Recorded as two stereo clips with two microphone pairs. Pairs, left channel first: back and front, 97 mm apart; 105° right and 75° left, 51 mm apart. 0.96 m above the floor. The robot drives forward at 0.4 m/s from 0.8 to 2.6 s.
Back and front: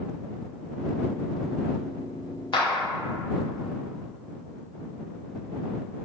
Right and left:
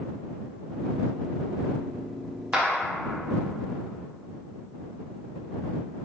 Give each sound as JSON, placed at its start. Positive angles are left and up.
{"t": 2.5, "sound": "a clap", "azimuth_deg": 145, "distance_m": 0.6}